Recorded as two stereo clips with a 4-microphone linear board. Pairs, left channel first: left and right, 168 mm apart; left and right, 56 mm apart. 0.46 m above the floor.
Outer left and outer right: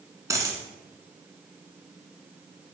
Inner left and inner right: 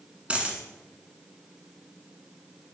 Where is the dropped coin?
20° right (ahead or behind), 1.4 m.